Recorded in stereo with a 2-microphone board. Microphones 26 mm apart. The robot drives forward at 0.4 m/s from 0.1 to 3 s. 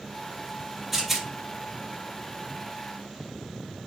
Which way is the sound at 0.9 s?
Centre (ahead or behind).